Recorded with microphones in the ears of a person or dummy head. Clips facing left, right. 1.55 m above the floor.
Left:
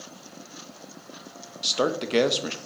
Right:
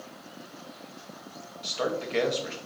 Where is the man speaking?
55° left (ahead or behind), 0.5 m.